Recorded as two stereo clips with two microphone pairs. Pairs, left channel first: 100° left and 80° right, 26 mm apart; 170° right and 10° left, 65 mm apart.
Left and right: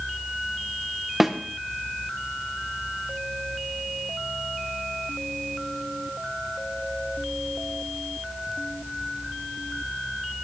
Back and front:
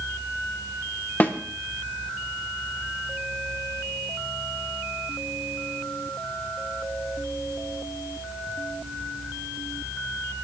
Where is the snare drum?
150° right, 0.8 m.